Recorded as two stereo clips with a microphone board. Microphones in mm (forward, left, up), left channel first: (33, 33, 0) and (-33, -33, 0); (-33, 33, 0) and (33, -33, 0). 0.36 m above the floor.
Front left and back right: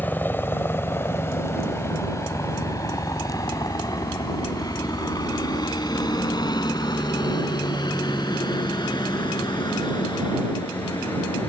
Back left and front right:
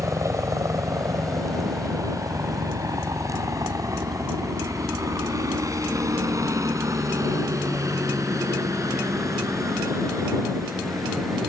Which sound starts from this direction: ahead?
A helicopter, at 0.0 s.